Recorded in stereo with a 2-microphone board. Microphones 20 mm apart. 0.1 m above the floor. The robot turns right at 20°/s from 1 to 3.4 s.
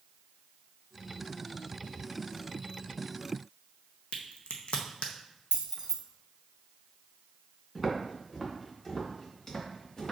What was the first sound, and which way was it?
A crack, 65° left (ahead or behind).